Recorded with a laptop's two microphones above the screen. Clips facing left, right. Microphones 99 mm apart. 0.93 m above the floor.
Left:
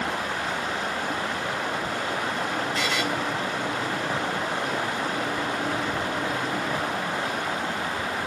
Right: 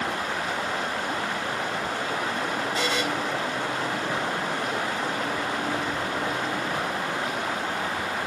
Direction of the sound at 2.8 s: 20° right (ahead or behind).